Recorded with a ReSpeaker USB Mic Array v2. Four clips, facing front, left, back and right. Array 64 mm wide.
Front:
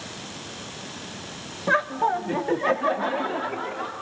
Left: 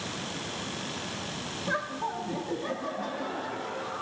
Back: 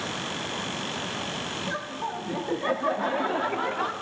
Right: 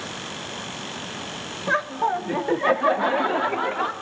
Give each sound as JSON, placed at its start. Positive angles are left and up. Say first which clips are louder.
{"t": 1.7, "sound": "laughter", "louder": "right 9 dB, front 14 dB", "azimuth_deg": -30, "distance_m": 1.2}